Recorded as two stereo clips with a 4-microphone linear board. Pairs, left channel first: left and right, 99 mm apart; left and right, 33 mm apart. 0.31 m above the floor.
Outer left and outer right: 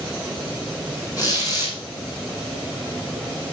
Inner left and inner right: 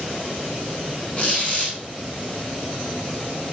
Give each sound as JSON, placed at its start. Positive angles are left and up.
{"t": 1.2, "sound": "a squeak", "side_deg": 40, "distance_m": 8.0}